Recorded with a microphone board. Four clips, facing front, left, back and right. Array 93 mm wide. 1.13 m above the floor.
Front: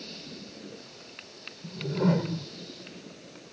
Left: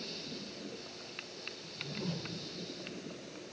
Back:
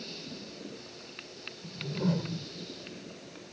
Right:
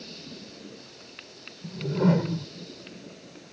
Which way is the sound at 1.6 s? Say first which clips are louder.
Right 18 dB, front 5 dB; 65° right.